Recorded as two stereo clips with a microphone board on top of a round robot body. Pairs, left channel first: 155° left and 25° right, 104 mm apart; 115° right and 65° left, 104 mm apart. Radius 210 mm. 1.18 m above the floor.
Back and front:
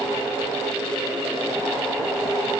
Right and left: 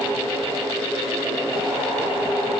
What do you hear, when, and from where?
Only background noise.